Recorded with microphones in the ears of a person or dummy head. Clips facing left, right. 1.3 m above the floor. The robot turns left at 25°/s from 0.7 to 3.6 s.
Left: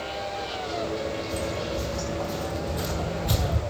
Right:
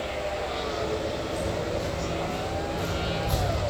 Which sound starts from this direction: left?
Footsteps, at 1.3 s.